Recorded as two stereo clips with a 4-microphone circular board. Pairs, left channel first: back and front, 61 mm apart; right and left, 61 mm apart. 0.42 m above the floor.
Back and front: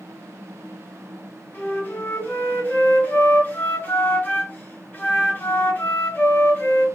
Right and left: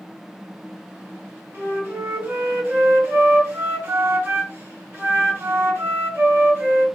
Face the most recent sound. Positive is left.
turn(degrees=125)